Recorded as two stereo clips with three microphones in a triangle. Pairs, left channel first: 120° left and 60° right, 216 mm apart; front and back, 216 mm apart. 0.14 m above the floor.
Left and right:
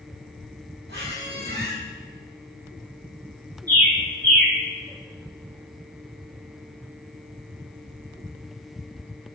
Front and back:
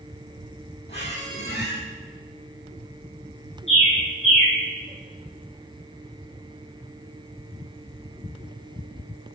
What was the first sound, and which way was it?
A squeak, 30° right.